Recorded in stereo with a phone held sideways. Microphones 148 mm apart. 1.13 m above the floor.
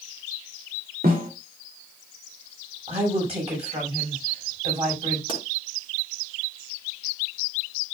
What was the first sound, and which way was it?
A snare drum, 80° right.